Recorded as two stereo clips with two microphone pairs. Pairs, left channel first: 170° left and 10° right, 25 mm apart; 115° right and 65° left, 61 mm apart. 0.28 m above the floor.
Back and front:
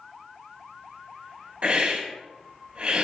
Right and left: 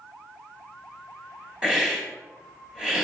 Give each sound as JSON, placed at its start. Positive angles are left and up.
{"t": 1.6, "sound": "a hiss", "azimuth_deg": -15, "distance_m": 2.0}